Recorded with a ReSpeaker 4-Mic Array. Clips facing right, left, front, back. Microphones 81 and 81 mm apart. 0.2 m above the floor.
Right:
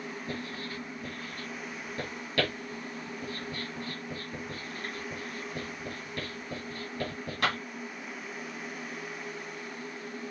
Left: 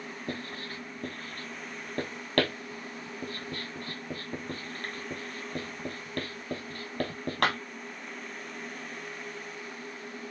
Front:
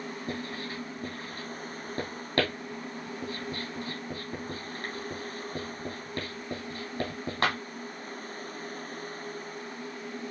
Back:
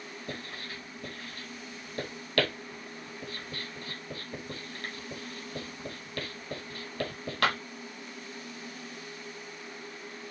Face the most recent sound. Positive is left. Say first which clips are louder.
# left 2 dB, front 4 dB
turn(degrees=60)